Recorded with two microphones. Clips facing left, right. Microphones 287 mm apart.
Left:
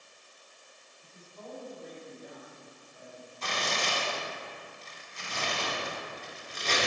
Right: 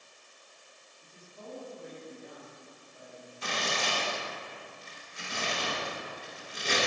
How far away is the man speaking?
About 1.1 m.